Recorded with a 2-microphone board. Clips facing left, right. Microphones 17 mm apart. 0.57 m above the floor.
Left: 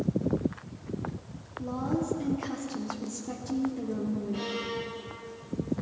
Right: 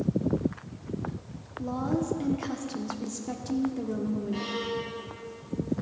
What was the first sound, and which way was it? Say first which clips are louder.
A woman speaking: right 1 dB; 25° right (ahead or behind).